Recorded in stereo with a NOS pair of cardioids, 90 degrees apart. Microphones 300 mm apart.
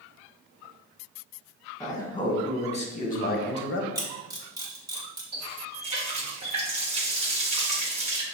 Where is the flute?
No flute in this recording.